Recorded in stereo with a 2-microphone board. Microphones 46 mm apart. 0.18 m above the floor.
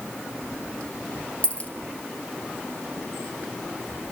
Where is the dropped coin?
30° left (ahead or behind), 1.8 m.